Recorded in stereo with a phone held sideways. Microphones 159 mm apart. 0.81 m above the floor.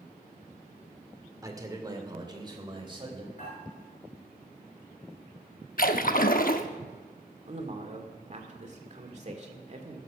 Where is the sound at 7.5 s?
45° right (ahead or behind), 2 m.